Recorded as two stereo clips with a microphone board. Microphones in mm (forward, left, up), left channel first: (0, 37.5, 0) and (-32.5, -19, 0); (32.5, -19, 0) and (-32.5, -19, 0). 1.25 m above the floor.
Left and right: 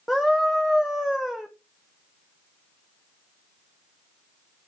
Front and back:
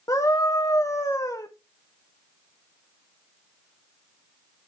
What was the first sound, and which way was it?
A scream, 25° right.